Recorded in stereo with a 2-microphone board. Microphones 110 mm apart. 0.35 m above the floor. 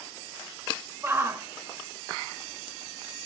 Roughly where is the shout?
Right.